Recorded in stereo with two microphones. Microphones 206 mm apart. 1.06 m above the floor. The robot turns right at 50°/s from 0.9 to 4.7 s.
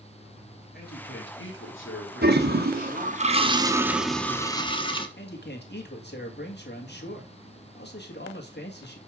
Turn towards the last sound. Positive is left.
turn(degrees=55)  # may be behind; listen again after turning